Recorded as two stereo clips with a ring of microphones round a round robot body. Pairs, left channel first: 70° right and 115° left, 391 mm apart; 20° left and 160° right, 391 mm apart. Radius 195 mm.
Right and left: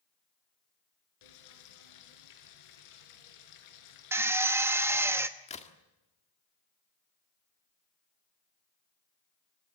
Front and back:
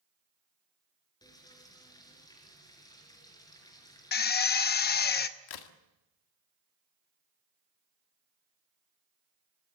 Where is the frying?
60° right, 4 m.